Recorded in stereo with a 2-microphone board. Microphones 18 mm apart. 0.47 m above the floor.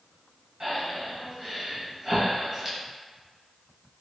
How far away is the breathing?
About 1.2 m.